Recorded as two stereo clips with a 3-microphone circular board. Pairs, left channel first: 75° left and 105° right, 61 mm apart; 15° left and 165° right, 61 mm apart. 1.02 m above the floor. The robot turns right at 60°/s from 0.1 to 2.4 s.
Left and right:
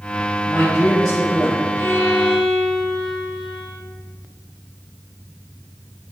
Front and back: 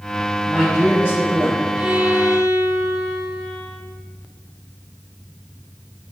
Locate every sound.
0.5 s a man speaking: 105° left, 1.4 m; by 1.8 s straight behind, 1.4 m
1.8 s a violin: 120° left, 1.2 m; by 3.8 s 160° left, 1.2 m